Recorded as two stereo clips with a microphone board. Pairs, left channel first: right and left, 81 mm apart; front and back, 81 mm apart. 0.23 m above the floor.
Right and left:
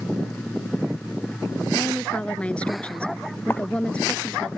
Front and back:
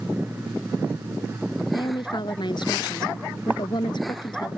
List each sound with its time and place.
1.7 s a woman speaking: 15° right
3.5 s writing: 125° right